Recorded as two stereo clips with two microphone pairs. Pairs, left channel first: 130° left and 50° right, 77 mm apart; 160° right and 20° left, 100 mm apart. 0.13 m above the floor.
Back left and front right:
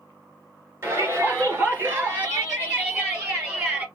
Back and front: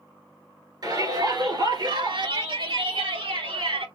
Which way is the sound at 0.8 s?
10° right.